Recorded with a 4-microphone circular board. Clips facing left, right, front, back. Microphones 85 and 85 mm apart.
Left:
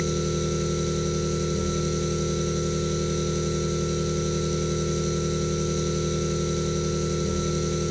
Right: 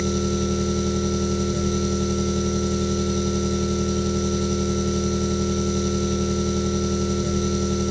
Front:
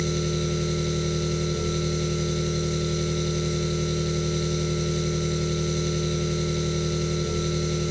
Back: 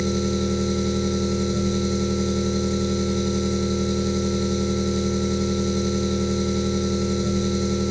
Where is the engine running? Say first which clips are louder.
Right 3 dB, back 4 dB; 110° right, 1.7 m.